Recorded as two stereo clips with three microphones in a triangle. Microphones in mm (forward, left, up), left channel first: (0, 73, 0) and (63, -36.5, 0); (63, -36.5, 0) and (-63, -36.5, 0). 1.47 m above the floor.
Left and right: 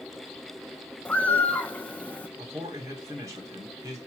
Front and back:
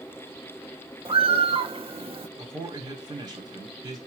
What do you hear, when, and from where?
1.1 s a bird: 165° right, 1.0 m
2.4 s a man speaking: 125° right, 4.5 m